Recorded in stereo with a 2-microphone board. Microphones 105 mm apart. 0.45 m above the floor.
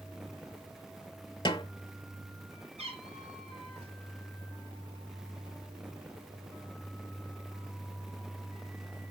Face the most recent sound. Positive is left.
turn(degrees=-80)